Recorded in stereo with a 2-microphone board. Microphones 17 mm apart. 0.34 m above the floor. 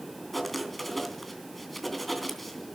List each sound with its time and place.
0.3 s writing: 10° left (ahead or behind), 3 m